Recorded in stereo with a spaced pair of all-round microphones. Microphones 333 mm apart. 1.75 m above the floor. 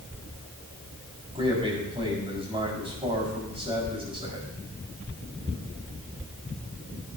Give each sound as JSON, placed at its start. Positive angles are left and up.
{"t": 1.4, "sound": "a man speaking", "side_deg": -15, "distance_m": 5.0}